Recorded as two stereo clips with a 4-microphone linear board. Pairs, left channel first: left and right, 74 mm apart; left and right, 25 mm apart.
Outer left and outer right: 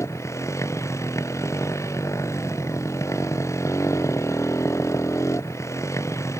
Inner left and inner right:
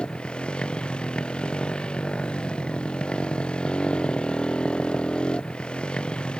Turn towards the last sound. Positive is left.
turn(degrees=40)  # may be behind; listen again after turning